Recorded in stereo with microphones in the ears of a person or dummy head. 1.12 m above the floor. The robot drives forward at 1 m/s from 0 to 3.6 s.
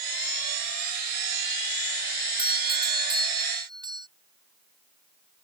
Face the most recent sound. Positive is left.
turn(degrees=-20)  # may be behind; listen again after turning